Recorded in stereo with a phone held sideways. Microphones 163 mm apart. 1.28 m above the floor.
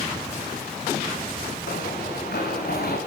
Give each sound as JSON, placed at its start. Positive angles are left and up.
{"t": 1.7, "sound": "running footsteps", "side_deg": 75, "distance_m": 7.5}